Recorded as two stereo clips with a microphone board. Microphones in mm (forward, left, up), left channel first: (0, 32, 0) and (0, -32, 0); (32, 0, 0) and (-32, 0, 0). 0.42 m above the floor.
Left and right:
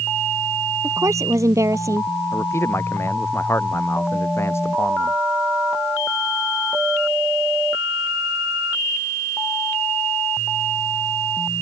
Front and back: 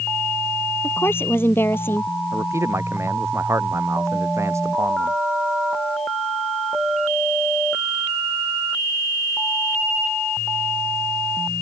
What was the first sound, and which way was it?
A woman speaking, 55° right.